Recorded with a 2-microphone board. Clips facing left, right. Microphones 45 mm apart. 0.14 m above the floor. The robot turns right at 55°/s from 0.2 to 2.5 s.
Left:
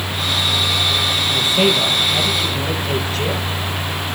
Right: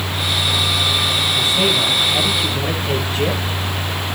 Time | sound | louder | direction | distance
1.3 | a man speaking | left 3 dB | 130° left | 3 m